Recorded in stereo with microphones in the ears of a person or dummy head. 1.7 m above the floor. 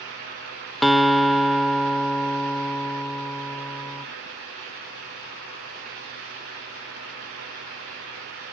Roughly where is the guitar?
Centre.